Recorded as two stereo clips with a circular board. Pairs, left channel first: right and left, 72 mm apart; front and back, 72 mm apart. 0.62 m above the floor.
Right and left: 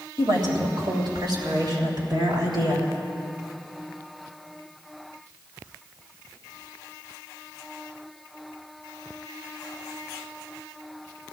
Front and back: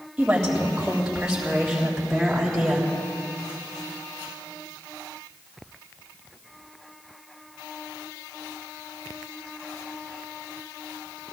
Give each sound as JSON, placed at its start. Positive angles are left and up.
{"t": 0.2, "sound": "a woman speaking", "azimuth_deg": 105, "distance_m": 3.5}